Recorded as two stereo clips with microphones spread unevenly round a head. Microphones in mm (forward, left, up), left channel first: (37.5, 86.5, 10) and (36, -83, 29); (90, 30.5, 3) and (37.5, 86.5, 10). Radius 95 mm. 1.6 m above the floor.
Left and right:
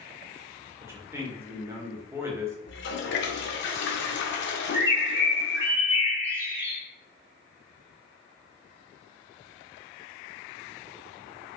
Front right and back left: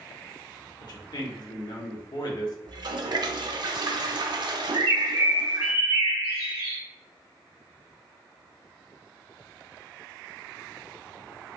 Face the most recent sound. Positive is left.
turn(degrees=-165)